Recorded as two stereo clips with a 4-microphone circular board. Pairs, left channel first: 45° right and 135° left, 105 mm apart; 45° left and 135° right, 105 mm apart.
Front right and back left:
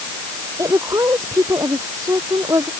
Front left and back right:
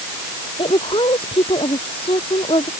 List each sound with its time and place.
0.6 s a woman speaking: 75° left